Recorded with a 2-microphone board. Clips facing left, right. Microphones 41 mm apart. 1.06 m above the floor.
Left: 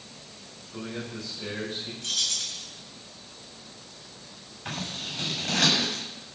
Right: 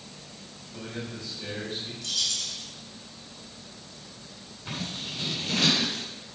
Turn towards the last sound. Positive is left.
turn(degrees=50)  # may be behind; listen again after turning